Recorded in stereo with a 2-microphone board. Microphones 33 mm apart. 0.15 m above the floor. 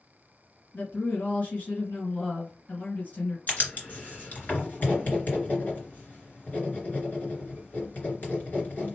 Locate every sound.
0.7 s a woman speaking: 50° left (ahead or behind), 2 m
3.5 s writing: 50° left (ahead or behind), 2.5 m